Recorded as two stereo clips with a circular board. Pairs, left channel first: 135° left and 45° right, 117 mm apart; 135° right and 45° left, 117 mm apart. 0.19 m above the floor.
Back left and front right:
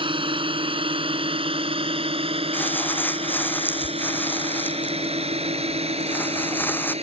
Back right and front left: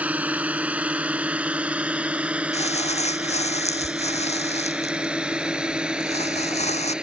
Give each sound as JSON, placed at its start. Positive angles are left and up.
{"t": 0.0, "sound": "a drone", "azimuth_deg": -30}
{"t": 2.5, "sound": "crumpling", "azimuth_deg": -155}